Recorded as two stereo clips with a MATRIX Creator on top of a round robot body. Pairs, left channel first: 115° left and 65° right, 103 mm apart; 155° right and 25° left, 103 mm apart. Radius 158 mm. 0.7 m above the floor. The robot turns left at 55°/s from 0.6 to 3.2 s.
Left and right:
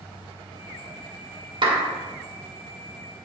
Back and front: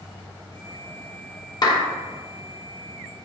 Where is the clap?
105° right, 2 m; by 1.8 s 120° right, 2 m.